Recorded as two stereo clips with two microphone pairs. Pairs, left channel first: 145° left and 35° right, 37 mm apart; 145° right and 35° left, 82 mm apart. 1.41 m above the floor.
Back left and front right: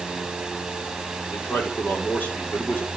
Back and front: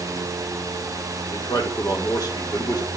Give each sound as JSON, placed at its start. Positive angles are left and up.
{"t": 1.3, "sound": "a man speaking", "azimuth_deg": 170, "distance_m": 4.5}